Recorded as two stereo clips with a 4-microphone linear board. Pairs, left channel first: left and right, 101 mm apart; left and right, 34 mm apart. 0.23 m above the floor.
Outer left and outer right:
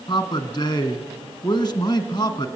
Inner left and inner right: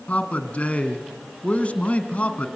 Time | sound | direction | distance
0.1 | a man speaking | 40° left (ahead or behind) | 1.7 m